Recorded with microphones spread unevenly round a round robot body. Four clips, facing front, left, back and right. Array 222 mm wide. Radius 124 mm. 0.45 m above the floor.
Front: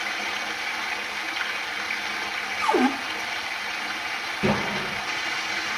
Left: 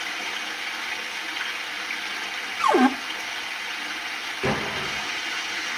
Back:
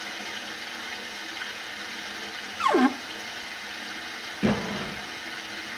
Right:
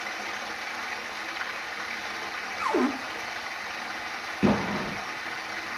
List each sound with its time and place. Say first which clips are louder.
0.0 s running water: left 1 dB, front 7 dB; 10° right, 2.5 m
2.6 s a cupboard door: left 7 dB, even; 115° left, 0.8 m
4.4 s an explosion: right 2 dB, front 1 dB; 95° right, 2.5 m